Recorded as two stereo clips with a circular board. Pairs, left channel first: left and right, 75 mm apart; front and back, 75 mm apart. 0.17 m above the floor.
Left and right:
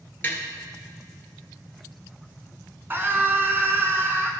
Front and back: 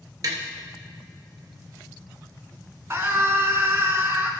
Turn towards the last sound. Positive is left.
turn(degrees=-135)